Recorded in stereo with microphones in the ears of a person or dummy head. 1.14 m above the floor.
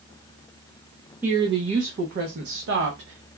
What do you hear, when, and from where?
1.2 s a woman speaking: 15° right (ahead or behind), 0.7 m; by 3.3 s 70° right (ahead or behind), 1.2 m